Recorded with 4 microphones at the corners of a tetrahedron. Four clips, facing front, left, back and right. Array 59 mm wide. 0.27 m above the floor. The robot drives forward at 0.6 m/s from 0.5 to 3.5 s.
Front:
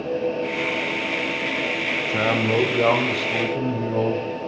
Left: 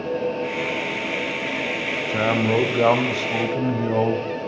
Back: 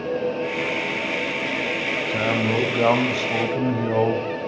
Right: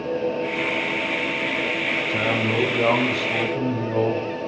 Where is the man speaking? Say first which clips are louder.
Left 6 dB, front 2 dB; 50° left, 1.1 m; by 4.3 s 140° left, 1.1 m.